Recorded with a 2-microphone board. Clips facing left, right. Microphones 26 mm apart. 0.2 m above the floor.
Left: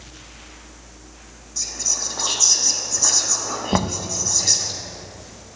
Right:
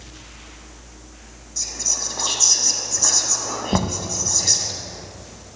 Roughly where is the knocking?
Centre.